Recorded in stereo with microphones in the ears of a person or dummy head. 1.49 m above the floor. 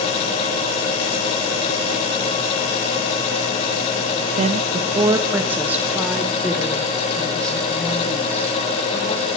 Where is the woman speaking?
40° right (ahead or behind), 0.9 m; by 9.3 s 15° left (ahead or behind), 3 m.